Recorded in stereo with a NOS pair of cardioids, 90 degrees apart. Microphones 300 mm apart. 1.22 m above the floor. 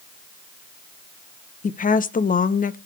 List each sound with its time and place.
1.6 s a woman speaking: 25° left, 0.7 m